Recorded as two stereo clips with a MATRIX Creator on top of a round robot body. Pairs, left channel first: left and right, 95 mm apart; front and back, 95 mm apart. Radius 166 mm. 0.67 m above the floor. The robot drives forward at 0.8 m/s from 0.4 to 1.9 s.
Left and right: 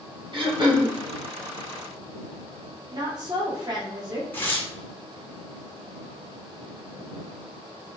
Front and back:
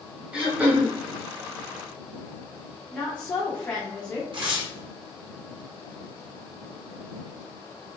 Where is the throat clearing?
100° right, 1.9 m; by 0.9 s 115° right, 2.0 m.